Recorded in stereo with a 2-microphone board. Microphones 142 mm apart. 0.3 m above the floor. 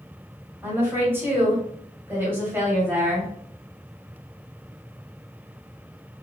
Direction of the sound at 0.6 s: 15° right (ahead or behind).